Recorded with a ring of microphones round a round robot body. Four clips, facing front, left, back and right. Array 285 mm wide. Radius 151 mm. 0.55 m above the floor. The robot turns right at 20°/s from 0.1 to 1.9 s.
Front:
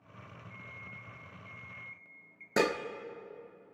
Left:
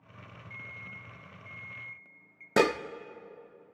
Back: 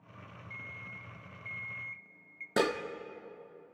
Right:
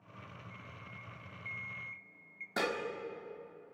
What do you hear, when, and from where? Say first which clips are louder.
0.5 s an alarm clock: left 4 dB, back 2 dB; 170° left, 1.9 m; by 2.5 s 160° right, 1.9 m
2.6 s dishes clattering: left 10 dB, front 1 dB; 85° left, 0.8 m